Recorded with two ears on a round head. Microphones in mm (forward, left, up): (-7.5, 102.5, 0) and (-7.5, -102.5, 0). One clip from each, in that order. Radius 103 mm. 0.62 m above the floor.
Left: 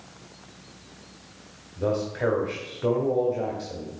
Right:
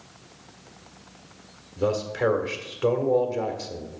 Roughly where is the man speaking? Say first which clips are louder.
Right 2 dB; right.